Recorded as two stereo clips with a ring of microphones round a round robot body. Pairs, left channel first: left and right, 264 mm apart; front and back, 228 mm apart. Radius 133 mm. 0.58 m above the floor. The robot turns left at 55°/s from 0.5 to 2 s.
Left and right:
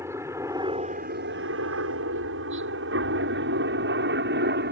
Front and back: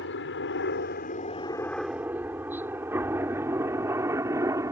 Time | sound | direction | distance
0.0 | a helicopter | 10° right | ?